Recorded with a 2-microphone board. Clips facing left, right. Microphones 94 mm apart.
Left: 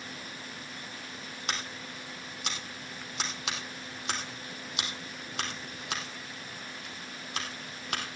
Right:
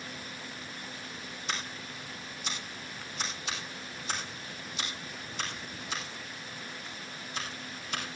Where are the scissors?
70° left (ahead or behind), 3 m.